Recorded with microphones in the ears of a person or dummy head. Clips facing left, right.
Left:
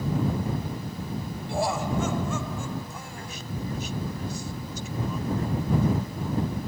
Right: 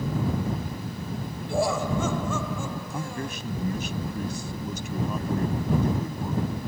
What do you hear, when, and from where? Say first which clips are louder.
1.5 s laughter: right 2 dB; 90° right; by 3.4 s 80° right
2.9 s a man speaking: right 7 dB; 55° right (ahead or behind)